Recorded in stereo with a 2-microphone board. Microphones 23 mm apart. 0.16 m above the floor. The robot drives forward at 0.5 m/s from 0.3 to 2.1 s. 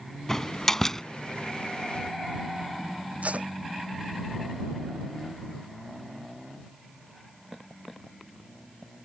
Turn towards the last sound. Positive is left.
turn(degrees=-80)